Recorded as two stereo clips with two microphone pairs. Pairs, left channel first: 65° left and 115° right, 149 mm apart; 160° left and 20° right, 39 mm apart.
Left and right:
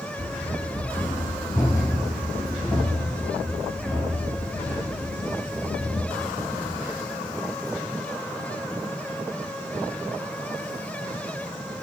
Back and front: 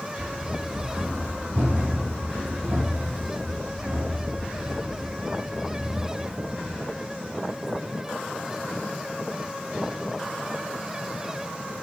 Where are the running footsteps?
35° left, 1.2 m; by 6.8 s 30° right, 4 m.